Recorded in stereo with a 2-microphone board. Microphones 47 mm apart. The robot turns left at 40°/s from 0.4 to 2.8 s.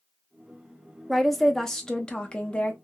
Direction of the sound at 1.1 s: Centre (ahead or behind).